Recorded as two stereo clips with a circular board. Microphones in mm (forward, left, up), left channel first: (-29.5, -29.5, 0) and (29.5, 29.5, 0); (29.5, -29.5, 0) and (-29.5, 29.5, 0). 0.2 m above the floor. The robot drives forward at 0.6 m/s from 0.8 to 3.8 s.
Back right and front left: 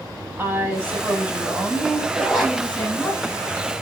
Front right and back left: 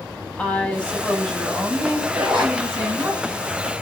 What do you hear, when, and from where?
0.4 s a woman speaking: 15° left, 1.1 m; by 3.1 s 170° left, 1.3 m
2.1 s a zipper: 125° left, 1.9 m; by 2.6 s 135° left, 2 m